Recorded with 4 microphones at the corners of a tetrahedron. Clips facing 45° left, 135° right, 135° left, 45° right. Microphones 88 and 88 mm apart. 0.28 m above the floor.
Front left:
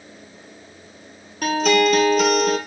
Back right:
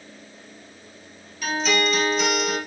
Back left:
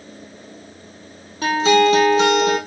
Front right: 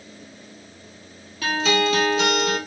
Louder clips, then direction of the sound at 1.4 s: Front left 6 dB, back left 7 dB; 75° left.